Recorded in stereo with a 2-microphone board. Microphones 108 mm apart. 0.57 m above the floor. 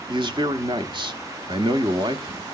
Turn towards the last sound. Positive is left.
turn(degrees=-50)  # may be behind; listen again after turning